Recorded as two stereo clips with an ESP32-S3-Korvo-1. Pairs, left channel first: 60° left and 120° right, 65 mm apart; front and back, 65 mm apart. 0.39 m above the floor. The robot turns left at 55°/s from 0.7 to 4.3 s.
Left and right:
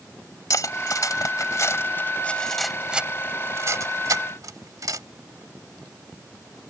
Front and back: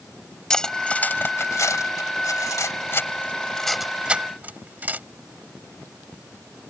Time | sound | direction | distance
0.5 | cutlery clinking | 80° left | ?